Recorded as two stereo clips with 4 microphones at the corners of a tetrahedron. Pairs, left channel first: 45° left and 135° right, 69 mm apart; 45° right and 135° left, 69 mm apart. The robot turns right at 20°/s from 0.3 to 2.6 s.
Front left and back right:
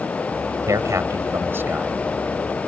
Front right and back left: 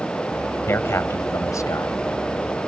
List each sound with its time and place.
0.7 s a man speaking: 100° right; by 2.0 s 75° right